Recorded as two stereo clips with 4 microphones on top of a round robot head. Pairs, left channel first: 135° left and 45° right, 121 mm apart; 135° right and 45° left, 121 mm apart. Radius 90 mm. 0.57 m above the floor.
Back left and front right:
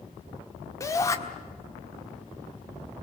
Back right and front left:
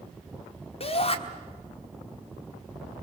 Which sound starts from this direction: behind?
A shout, at 0.8 s.